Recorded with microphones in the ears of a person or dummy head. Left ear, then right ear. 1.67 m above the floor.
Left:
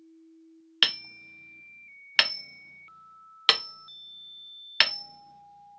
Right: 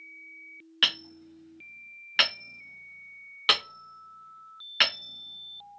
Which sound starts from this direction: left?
Hammering, at 0.8 s.